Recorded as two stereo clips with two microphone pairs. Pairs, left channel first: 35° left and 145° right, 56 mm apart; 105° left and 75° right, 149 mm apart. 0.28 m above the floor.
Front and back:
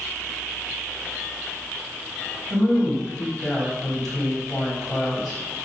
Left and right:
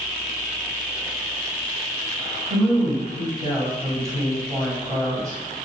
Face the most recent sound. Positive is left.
turn(degrees=-40)